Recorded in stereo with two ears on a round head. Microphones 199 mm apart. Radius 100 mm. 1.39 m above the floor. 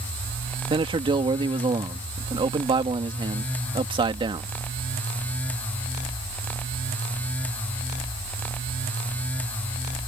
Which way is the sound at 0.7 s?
25° right (ahead or behind).